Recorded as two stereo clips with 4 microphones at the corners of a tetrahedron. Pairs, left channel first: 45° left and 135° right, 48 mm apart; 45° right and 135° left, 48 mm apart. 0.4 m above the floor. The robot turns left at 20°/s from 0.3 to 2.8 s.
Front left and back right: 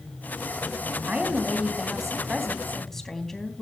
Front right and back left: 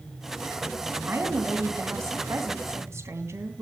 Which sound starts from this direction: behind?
A woman speaking, at 1.1 s.